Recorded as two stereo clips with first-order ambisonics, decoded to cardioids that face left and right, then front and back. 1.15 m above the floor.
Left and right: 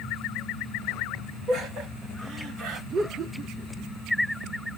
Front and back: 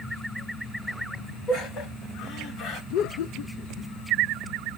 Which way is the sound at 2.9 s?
25° right.